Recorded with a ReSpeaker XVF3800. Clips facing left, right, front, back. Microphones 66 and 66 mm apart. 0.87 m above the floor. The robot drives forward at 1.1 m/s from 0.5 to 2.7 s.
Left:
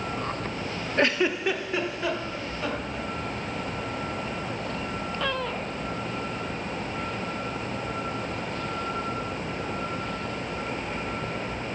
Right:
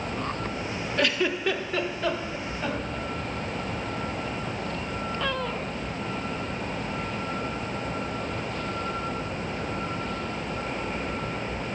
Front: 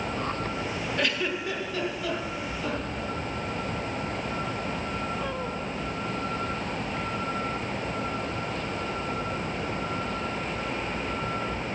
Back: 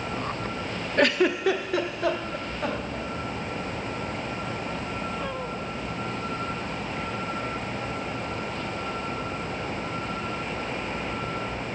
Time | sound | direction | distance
1.0 | a giggle | 145° left | 0.5 m